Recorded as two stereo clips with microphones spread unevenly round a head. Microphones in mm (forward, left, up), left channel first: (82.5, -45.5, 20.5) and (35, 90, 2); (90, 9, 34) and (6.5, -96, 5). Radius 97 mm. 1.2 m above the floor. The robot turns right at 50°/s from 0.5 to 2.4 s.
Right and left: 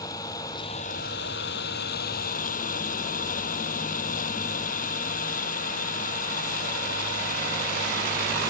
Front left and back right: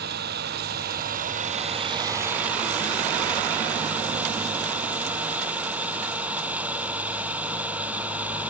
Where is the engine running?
145° right; by 8.5 s 50° right.